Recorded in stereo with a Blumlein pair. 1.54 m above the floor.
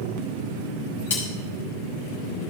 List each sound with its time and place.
1.1 s cutlery clinking: 60° left, 2.5 m